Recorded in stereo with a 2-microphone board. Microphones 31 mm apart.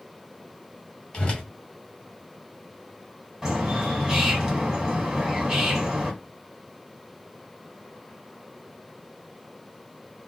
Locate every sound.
1.1 s a whoosh: 30° left (ahead or behind), 1.8 m
3.4 s a bird: 15° right (ahead or behind), 1.7 m